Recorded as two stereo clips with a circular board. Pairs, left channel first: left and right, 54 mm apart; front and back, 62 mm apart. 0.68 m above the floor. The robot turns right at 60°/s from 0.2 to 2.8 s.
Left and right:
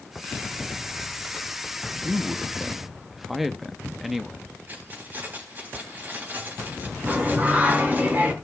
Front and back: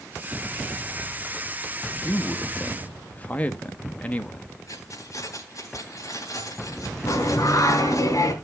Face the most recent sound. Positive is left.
turn(degrees=-30)